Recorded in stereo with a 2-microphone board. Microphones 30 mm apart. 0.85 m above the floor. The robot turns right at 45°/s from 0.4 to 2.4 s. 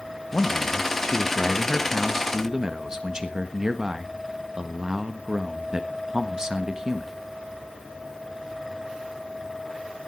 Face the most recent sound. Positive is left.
turn(degrees=-150)